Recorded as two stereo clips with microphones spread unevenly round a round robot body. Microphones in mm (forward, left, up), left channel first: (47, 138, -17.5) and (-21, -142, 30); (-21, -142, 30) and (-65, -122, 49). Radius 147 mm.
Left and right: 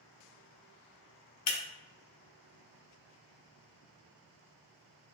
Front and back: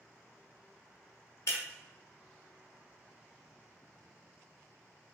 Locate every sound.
1.5 s breaking glass: 40° left, 0.7 m